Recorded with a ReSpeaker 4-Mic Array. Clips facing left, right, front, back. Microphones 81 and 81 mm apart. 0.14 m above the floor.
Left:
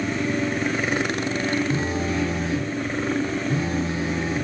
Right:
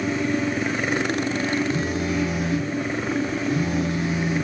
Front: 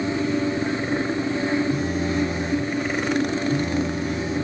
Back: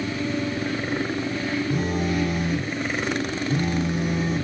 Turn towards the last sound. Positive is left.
turn(degrees=145)